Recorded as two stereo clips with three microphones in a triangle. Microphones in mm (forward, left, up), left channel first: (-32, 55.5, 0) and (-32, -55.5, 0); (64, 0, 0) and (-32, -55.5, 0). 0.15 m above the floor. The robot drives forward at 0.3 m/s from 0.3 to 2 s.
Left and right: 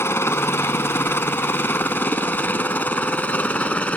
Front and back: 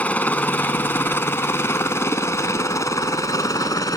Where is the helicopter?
80° left; by 4.0 s 25° left.